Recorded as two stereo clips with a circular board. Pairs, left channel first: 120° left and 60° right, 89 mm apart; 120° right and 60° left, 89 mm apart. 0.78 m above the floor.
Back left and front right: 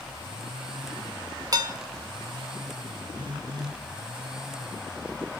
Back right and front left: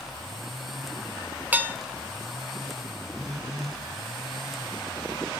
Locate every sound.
1.5 s dishes clattering: 10° right, 1.3 m
3.1 s a phone buzzing: 30° right, 1.6 m